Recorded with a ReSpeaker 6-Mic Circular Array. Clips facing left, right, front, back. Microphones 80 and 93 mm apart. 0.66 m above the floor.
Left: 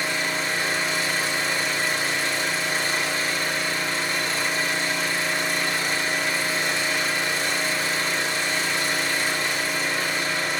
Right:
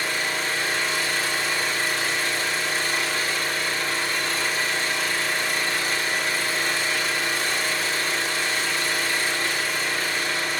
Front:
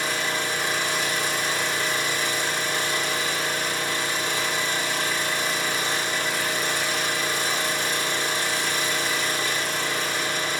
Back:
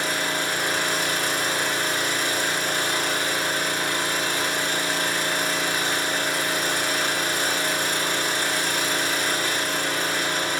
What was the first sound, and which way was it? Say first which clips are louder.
An engine running: even, back 1 dB; 155° left.